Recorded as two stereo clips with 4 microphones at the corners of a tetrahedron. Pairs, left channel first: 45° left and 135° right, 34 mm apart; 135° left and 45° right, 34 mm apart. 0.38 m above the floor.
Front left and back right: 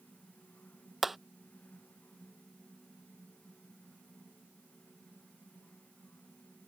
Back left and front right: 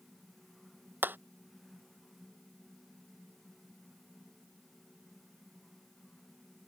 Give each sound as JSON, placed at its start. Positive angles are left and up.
{"t": 1.0, "sound": "hammering", "azimuth_deg": -55}